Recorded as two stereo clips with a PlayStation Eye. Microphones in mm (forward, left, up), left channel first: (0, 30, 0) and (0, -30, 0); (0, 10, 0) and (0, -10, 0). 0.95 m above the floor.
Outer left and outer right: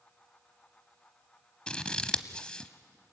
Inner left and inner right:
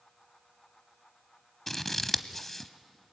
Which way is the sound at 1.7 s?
15° left (ahead or behind).